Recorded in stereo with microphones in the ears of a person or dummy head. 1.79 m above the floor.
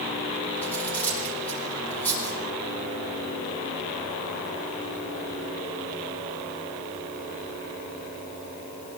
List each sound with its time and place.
0.6 s cutlery clinking: 10° left (ahead or behind), 5 m